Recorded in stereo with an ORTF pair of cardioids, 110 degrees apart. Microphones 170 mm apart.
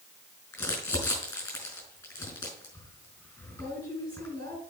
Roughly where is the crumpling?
Ahead.